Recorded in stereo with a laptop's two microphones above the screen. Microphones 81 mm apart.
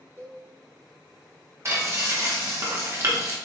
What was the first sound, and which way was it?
A cowbell, 25° right (ahead or behind).